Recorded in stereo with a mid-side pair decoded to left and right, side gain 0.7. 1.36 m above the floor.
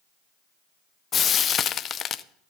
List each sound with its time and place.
1.1 s frying: 35° left, 0.5 m